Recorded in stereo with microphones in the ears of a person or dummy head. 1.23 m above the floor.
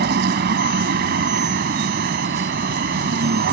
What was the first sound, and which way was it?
A vehicle, 70° right (ahead or behind).